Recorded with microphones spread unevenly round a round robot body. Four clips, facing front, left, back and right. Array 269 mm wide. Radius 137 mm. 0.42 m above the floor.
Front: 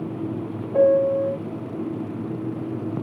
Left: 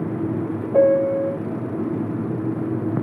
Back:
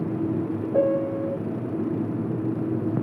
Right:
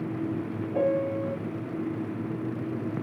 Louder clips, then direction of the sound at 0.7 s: Left 10 dB, front 6 dB; 100° left.